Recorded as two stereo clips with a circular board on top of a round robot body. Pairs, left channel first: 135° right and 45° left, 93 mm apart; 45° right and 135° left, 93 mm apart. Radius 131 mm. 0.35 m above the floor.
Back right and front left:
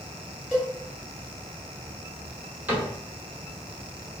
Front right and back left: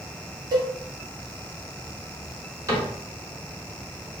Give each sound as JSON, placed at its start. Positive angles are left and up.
{"t": 0.5, "sound": "a cowbell", "azimuth_deg": 140, "distance_m": 1.7}
{"t": 2.7, "sound": "a cupboard door", "azimuth_deg": 105, "distance_m": 1.6}